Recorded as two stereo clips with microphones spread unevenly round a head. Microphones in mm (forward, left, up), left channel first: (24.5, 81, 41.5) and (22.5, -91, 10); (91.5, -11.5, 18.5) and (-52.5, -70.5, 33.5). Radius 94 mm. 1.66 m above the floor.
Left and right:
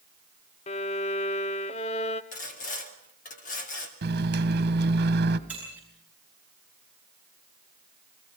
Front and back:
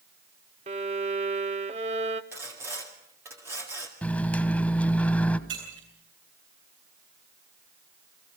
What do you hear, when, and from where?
0.7 s a violin: 145° left, 0.8 m
2.3 s sawing: 130° left, 2 m
4.0 s a microwave: 60° right, 1.2 m
5.5 s breaking glass: 175° right, 10 m